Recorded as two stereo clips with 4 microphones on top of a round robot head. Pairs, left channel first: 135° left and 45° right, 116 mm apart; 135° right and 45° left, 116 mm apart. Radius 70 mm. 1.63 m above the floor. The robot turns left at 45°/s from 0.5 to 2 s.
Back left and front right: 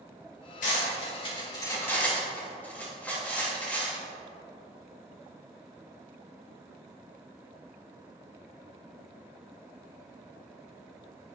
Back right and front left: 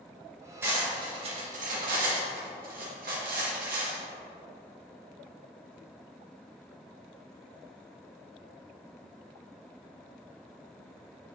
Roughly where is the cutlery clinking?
Behind left.